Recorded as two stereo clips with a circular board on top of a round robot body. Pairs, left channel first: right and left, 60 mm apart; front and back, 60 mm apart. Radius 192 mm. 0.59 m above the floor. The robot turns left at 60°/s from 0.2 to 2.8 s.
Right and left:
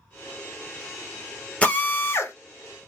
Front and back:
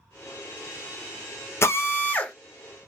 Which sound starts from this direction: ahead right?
A drill, at 1.6 s.